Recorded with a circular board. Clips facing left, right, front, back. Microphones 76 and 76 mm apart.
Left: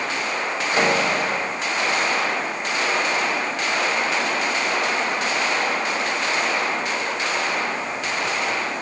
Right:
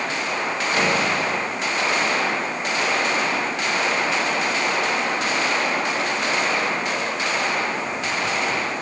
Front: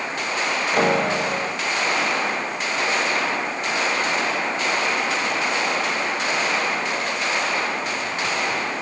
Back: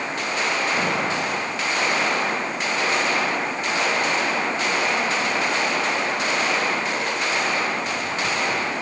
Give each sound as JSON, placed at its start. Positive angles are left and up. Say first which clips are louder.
{"t": 0.7, "sound": "a piano", "louder": "left 2 dB, front 4 dB", "azimuth_deg": 20}